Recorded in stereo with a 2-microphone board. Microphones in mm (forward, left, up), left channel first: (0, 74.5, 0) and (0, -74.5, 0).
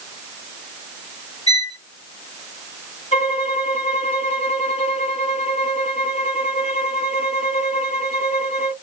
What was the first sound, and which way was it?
A violin, 45° left (ahead or behind).